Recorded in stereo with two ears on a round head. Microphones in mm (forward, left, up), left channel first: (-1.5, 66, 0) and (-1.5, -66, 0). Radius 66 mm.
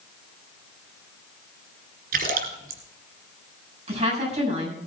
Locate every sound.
2.1 s a splash: 65° right (ahead or behind), 2 m
3.9 s a woman speaking: 45° right (ahead or behind), 6.5 m